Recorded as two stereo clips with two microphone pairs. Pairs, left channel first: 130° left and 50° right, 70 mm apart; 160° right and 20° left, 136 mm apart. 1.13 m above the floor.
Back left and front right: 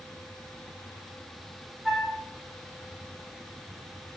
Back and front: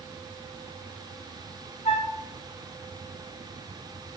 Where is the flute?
145° right, 0.8 m.